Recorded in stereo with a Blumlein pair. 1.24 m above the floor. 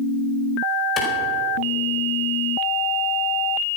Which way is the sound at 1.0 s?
25° left.